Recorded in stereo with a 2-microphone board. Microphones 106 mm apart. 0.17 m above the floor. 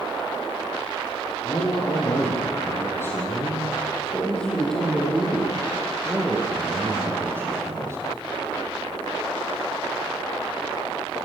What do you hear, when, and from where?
1.4 s a man speaking: 35° left (ahead or behind), 7 m; by 8.0 s 25° right (ahead or behind), 7 m